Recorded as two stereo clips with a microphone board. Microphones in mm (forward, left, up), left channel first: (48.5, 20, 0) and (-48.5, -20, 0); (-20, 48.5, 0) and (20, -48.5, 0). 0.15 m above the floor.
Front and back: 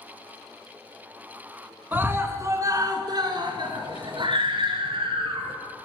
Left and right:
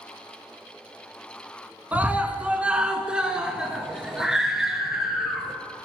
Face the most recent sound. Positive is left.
turn(degrees=-155)